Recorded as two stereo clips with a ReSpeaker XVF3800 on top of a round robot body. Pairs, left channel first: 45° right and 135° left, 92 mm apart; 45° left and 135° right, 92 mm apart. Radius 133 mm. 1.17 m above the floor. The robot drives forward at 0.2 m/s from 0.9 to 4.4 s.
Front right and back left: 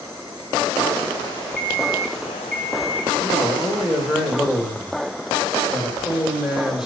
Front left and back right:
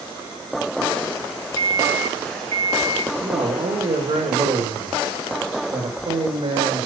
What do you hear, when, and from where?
1.6 s an alarm clock: 135° right, 4 m; by 3.1 s 140° right, 4.5 m
3.2 s a man speaking: 135° right, 2.5 m; by 6.9 s 140° right, 2.5 m